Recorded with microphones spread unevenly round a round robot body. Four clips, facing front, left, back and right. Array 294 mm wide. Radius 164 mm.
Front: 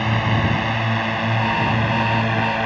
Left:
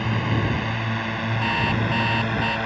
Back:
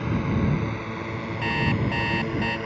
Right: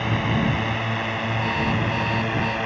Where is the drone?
Straight ahead; by 2.7 s 10° left.